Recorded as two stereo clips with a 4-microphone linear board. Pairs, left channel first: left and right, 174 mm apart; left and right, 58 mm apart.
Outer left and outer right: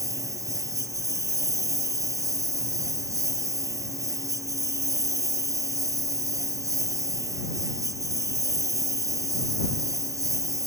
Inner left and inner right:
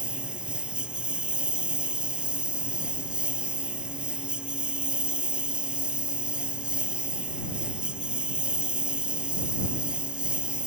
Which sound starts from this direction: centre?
A lawn mower, at 0.0 s.